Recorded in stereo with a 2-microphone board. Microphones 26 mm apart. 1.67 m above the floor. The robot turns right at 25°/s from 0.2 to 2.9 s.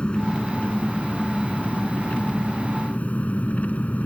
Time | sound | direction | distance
0.0 | an engine running | 45° left | ?